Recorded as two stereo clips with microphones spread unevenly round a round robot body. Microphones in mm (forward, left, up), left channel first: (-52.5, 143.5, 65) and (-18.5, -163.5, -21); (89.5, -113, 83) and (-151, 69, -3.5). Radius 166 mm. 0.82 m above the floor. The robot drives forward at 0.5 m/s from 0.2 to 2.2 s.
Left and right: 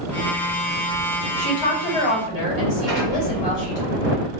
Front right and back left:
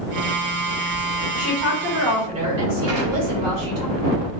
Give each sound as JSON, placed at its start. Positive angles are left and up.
{"t": 1.4, "sound": "a woman speaking", "azimuth_deg": 115, "distance_m": 2.0}
{"t": 2.9, "sound": "an explosion", "azimuth_deg": 170, "distance_m": 1.5}